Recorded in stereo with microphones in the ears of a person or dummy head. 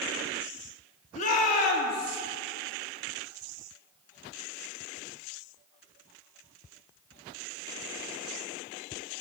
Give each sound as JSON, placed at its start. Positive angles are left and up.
{"t": 1.1, "sound": "a shout", "side_deg": 40, "distance_m": 3.0}